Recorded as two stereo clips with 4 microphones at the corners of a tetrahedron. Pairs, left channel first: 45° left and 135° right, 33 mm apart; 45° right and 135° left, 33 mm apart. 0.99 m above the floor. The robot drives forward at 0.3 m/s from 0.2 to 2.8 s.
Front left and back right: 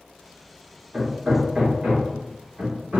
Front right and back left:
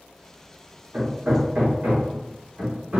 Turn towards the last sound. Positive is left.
turn(degrees=170)